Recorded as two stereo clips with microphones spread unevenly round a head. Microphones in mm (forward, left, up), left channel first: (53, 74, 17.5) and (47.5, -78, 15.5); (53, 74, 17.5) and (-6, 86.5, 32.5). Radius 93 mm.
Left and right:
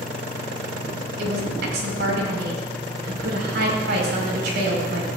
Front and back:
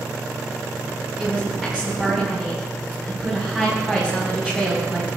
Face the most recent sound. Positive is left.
turn(degrees=-105)